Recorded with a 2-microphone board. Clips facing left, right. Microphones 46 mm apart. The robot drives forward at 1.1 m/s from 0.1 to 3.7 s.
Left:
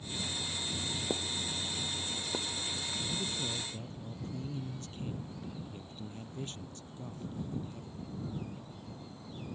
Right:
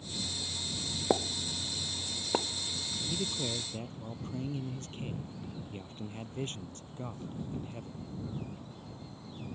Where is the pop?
65° right (ahead or behind); by 2.5 s 55° right (ahead or behind).